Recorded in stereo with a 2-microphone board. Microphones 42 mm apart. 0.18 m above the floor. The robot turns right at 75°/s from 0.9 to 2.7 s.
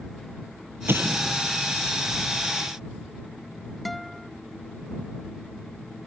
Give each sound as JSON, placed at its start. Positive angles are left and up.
{"t": 0.9, "sound": "an explosion", "side_deg": -60}
{"t": 3.9, "sound": "a guitar", "side_deg": 5}